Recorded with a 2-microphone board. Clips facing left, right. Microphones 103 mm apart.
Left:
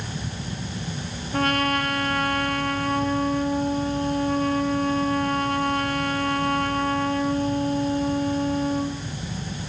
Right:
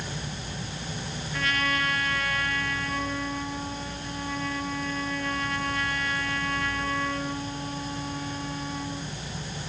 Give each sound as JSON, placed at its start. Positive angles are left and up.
{"t": 1.3, "sound": "a trumpet", "side_deg": 50, "distance_m": 3.0}